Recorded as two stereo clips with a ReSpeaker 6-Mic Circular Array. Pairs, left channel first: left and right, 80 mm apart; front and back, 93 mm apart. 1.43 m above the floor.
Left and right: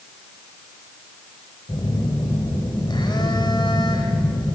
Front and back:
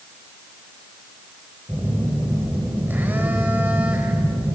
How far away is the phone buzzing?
About 3.5 m.